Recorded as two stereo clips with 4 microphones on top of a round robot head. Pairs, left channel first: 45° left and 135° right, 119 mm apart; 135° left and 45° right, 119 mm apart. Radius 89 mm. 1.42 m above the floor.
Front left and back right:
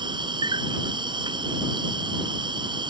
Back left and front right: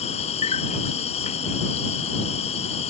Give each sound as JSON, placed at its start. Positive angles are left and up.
{"t": 0.0, "sound": "an insect", "azimuth_deg": 170}